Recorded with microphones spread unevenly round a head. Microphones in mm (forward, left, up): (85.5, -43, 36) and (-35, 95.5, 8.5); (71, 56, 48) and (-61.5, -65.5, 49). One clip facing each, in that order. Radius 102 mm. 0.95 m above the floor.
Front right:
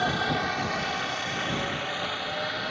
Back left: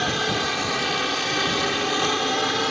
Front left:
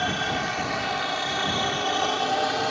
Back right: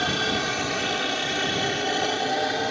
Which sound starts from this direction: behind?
A helicopter, at 0.0 s.